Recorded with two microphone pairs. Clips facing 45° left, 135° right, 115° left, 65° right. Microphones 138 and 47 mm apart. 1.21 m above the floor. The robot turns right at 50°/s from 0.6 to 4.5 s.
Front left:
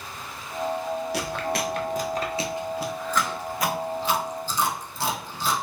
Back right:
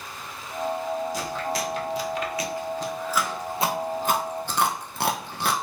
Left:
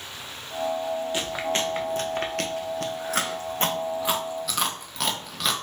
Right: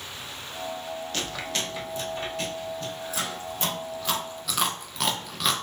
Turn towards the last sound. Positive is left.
turn(degrees=-155)